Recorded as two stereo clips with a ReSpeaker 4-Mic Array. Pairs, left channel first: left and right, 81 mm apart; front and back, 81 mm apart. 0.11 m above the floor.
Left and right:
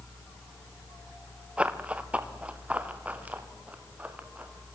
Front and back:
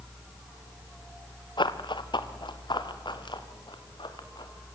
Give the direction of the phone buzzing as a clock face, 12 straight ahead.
I don't hear a phone buzzing.